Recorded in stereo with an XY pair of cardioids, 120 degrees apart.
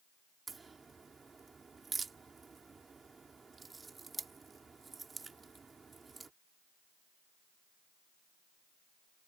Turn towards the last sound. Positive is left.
turn(degrees=-25)